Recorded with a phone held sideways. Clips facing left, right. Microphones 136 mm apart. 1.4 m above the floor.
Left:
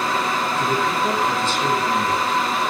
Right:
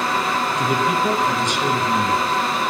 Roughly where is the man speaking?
Centre.